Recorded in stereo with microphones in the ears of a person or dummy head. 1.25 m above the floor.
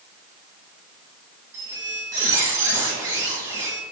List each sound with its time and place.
1.5 s a squeak: 20° right (ahead or behind), 1.3 m